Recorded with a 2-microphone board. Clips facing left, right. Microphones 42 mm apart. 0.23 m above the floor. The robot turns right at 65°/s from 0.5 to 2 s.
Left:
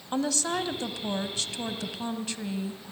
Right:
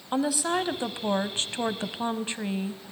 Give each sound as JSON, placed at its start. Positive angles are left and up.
{"t": 0.1, "sound": "a woman speaking", "azimuth_deg": -155, "distance_m": 1.1}